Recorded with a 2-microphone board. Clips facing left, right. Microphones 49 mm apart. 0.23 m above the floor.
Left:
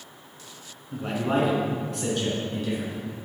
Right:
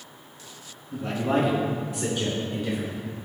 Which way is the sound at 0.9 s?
25° left (ahead or behind).